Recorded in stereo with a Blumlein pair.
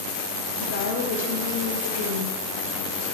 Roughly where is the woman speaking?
Ahead left.